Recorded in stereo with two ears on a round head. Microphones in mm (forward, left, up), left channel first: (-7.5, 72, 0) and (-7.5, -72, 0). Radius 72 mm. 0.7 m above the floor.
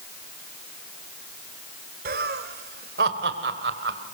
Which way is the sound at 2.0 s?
65° right (ahead or behind).